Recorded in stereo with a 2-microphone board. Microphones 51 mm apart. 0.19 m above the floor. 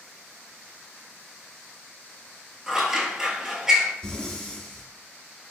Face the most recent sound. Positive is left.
turn(degrees=15)  # may be behind; listen again after turning